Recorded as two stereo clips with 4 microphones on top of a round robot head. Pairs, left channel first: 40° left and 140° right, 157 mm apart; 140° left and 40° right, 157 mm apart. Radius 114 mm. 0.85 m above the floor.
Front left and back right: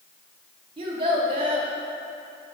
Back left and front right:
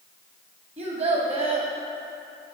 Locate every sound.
0.8 s a child speaking: 90° right, 1.3 m